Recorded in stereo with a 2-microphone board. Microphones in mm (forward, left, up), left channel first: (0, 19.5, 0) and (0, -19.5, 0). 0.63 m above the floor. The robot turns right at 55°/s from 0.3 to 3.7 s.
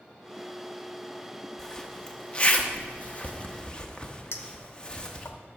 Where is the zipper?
10° left (ahead or behind), 1.0 m; by 5.3 s 25° left (ahead or behind), 1.0 m.